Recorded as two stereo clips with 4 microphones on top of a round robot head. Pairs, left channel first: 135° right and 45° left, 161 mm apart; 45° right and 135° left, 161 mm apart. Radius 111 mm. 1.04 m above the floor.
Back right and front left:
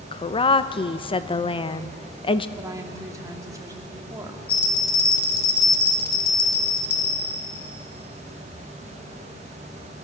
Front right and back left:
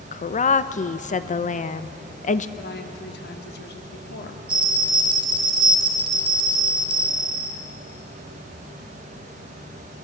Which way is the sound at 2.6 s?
30° right.